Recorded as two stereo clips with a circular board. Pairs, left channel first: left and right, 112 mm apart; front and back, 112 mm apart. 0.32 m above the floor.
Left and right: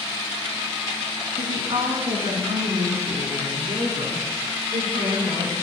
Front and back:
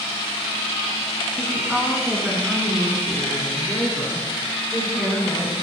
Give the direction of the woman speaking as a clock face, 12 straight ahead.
3 o'clock.